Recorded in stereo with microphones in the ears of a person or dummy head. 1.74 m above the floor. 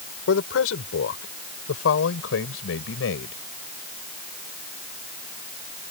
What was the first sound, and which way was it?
A man speaking, 90° left.